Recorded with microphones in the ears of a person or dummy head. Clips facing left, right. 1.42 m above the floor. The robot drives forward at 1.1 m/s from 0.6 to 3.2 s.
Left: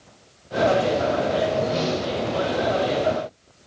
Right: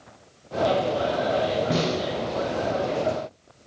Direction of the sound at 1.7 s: 60° right (ahead or behind).